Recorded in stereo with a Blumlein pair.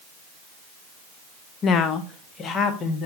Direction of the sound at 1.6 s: 25° left.